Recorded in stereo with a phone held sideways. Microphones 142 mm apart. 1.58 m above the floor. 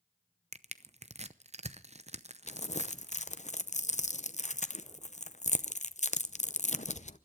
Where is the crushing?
50° right (ahead or behind), 0.7 m.